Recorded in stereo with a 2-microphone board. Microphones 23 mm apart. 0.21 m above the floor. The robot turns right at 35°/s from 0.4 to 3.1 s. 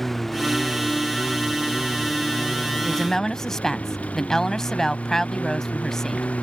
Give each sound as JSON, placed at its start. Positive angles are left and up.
{"t": 0.0, "sound": "a lawn mower", "azimuth_deg": 10}
{"t": 2.8, "sound": "a woman speaking", "side_deg": 20}